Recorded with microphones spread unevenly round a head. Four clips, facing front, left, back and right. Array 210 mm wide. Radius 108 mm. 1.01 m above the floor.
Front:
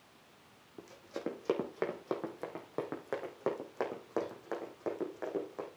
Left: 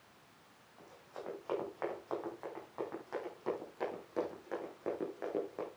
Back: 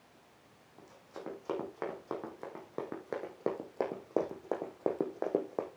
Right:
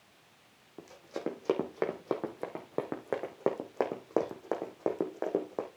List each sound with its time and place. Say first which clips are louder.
0.8 s running footsteps: right 10 dB, front 5 dB; 70° right, 3.5 m; by 5.7 s 145° right, 3.5 m